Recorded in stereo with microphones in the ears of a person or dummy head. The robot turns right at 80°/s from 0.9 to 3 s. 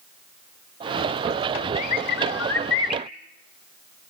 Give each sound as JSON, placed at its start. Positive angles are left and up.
{"t": 1.8, "sound": "a bird", "azimuth_deg": 40, "distance_m": 1.8}